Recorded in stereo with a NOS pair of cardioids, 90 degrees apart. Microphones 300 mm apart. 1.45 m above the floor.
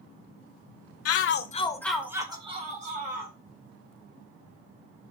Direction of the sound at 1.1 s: 60° left.